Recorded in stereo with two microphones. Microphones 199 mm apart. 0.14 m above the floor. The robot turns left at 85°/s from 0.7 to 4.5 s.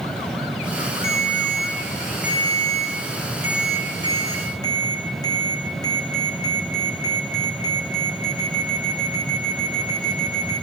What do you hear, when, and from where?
1.0 s a ringtone: 95° left, 4.5 m; by 10.6 s 160° left, 4.5 m